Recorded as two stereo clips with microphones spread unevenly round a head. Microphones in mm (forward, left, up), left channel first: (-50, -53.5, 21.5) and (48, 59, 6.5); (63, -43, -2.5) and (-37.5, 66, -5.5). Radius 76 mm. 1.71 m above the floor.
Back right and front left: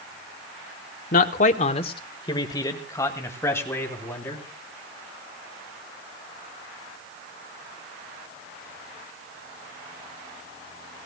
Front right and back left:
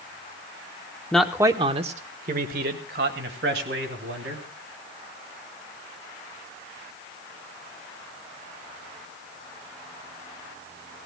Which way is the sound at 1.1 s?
130° right.